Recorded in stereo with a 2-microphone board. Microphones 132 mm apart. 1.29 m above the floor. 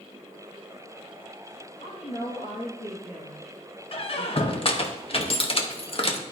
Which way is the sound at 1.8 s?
75° left (ahead or behind).